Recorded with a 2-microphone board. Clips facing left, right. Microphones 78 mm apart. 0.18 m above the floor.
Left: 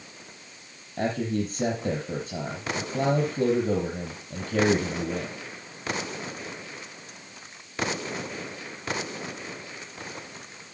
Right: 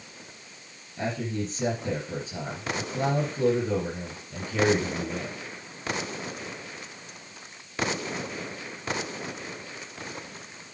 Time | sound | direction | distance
1.0 | a man speaking | 50° left (ahead or behind) | 5.5 m